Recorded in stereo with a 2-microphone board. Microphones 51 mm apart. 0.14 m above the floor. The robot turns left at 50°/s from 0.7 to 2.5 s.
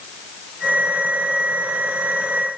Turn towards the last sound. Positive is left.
No sound to turn to.